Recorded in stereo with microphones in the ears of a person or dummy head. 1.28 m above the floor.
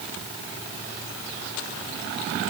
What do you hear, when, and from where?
Only background noise.